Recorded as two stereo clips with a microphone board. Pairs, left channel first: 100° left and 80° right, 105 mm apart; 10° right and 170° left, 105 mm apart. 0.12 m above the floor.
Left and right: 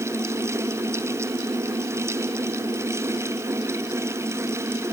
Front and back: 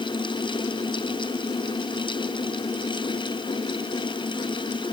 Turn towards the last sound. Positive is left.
No sound to turn to.